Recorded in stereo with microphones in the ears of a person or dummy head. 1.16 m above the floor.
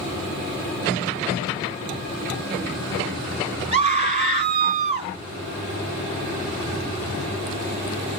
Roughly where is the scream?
Right.